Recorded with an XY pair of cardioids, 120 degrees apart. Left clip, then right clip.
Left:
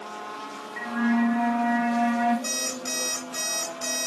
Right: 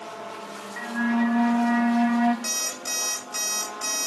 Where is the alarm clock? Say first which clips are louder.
Right 1 dB; 20° right, 1.5 m.